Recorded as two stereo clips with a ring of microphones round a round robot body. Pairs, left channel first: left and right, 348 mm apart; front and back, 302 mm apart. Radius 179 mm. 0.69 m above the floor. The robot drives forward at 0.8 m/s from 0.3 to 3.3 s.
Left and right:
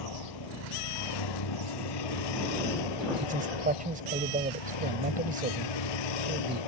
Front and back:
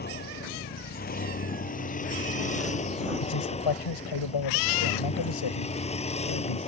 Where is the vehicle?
60° left; by 6.7 s 70° left.